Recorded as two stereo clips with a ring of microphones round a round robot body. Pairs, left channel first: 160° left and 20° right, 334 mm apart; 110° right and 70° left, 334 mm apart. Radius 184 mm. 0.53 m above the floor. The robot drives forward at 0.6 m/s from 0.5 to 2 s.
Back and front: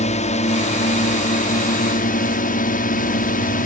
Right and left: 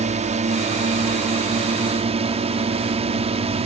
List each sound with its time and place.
0.0 s a drone: 115° left; by 3.7 s 120° left